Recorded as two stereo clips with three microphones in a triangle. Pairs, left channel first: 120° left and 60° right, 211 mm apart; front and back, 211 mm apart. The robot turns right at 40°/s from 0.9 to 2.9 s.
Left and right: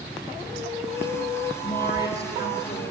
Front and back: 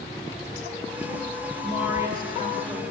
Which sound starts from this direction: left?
A woman speaking, at 1.6 s.